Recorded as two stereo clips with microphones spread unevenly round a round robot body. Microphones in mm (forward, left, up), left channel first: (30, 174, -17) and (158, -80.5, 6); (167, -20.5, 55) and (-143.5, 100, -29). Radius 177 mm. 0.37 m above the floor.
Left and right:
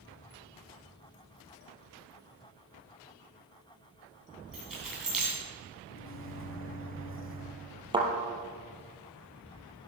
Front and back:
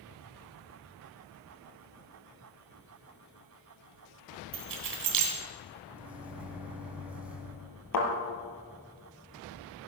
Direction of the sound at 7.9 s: 10° left.